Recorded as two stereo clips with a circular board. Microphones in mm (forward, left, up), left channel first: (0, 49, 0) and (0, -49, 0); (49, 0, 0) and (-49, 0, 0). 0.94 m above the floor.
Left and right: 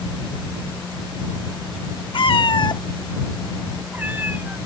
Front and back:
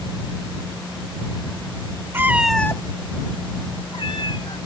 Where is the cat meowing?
115° left; by 4.6 s 25° right.